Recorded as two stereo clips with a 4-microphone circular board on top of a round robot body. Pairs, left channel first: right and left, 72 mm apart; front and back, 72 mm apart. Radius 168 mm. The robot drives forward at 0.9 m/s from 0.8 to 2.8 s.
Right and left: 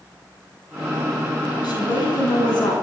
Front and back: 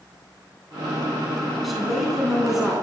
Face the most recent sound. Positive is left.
turn(degrees=-95)